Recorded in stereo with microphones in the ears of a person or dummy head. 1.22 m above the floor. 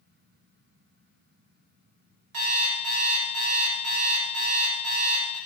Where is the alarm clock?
55° right (ahead or behind), 1.8 m.